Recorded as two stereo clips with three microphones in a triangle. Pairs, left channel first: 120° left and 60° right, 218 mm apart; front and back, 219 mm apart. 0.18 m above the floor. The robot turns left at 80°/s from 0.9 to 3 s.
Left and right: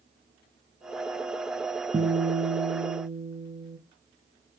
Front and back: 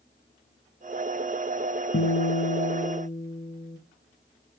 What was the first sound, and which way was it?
A guitar, 10° left.